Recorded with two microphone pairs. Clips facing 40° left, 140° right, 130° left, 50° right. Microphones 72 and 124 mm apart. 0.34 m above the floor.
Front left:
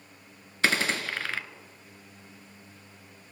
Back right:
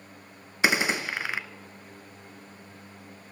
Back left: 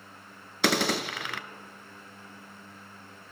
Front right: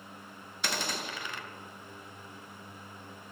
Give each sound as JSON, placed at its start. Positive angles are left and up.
{"t": 0.6, "sound": "a gunshot", "azimuth_deg": 145, "distance_m": 0.7}